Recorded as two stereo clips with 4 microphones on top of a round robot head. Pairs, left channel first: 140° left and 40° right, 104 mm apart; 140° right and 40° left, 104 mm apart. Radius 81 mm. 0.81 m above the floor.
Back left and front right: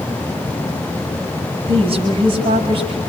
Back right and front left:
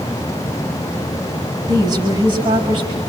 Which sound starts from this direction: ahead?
A woman speaking, at 1.7 s.